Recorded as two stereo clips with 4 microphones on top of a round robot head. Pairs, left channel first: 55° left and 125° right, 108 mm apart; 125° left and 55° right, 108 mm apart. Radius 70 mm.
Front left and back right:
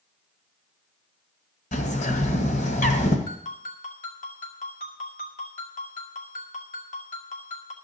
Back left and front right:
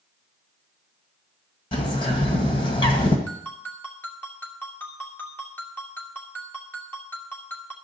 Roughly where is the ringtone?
Ahead left.